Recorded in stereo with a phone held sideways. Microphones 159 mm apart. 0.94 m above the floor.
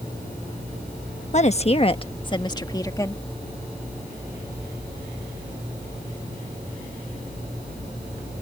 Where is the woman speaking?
45° left (ahead or behind); by 3.2 s 20° left (ahead or behind).